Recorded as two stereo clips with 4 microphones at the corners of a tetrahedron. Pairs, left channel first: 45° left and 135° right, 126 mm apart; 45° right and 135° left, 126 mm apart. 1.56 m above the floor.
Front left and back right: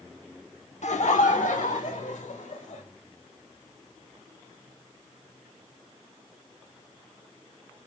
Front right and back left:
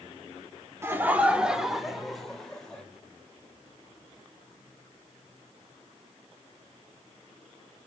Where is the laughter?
65° left, 1.0 m; by 2.8 s 40° left, 2.5 m.